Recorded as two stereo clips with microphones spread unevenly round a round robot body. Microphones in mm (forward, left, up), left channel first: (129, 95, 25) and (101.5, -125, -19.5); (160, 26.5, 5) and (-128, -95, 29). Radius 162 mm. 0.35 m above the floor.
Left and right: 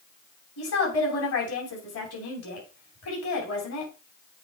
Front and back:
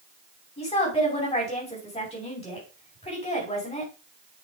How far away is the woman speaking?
About 3 m.